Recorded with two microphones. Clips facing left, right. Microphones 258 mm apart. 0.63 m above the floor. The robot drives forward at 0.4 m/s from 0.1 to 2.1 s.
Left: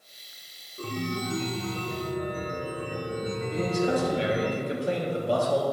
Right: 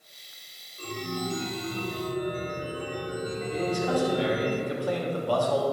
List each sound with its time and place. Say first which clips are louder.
0.8 s a chime: left 2 dB; 70° left (ahead or behind), 0.7 m; by 4.5 s 55° left (ahead or behind), 0.8 m
3.5 s a man speaking: left 1 dB; 25° left (ahead or behind), 1.1 m